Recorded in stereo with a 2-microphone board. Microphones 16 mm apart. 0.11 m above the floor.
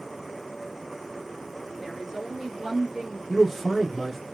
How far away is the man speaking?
About 1.1 m.